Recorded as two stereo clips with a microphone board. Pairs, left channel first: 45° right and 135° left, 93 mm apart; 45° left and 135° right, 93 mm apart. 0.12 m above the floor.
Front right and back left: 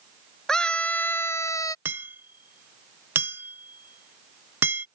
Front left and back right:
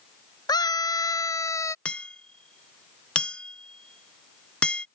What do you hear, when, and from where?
0.5 s a scream: 35° left; by 1.8 s 5° right
1.9 s hammering: 110° left